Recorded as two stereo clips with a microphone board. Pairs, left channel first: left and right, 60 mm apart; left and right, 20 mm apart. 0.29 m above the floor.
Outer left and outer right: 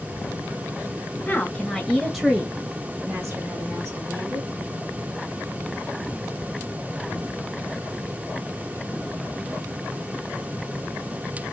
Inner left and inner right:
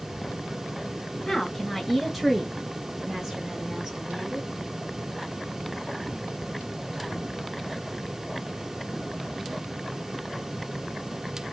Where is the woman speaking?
25° left (ahead or behind), 1.3 m; by 4.5 s 50° right (ahead or behind), 2.5 m.